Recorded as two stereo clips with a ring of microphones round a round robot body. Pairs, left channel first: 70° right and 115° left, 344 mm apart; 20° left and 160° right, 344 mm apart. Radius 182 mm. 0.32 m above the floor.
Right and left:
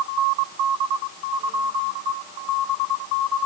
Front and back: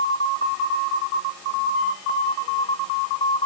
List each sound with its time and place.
Only background noise.